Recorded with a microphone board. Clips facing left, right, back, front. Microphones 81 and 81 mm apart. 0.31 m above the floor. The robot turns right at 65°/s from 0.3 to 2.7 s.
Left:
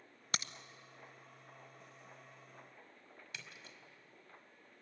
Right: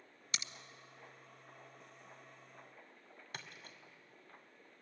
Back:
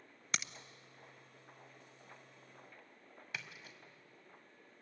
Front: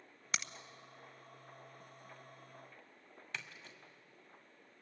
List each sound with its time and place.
0.3 s a crack: 85° left, 0.7 m; by 0.5 s 100° left, 0.7 m
3.3 s a splash: 100° right, 2 m